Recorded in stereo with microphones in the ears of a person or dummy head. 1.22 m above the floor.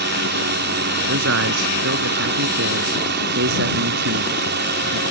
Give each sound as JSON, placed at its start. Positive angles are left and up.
{"t": 0.0, "sound": "a drone", "side_deg": -55}
{"t": 1.1, "sound": "a man speaking", "side_deg": -65}